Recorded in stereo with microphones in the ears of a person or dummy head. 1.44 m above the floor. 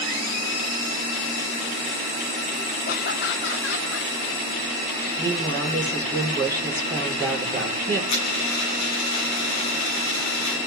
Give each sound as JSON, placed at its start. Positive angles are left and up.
{"t": 2.9, "sound": "laughter", "side_deg": 50, "distance_m": 1.1}
{"t": 5.2, "sound": "a woman speaking", "side_deg": 10, "distance_m": 4.0}
{"t": 8.1, "sound": "a dropped coin", "side_deg": 60, "distance_m": 7.0}